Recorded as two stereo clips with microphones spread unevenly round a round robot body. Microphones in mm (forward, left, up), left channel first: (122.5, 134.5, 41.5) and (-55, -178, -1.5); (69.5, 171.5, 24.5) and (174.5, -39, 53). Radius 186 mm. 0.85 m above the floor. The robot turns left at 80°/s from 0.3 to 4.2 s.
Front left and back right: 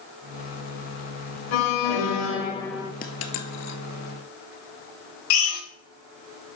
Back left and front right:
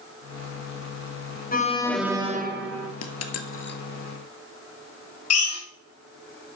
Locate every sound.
1.5 s an alarm: 65° left, 2.5 m; by 2.9 s 45° right, 2.5 m
3.0 s a dropped coin: 125° left, 1.6 m; by 3.8 s 65° left, 1.6 m
5.3 s a drill: 100° left, 4 m